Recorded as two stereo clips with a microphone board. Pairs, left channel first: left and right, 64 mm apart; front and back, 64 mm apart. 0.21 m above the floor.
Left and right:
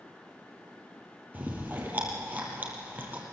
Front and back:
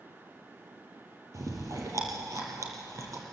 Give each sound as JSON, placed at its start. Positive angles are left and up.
{"t": 1.3, "sound": "chewing", "azimuth_deg": -150, "distance_m": 4.5}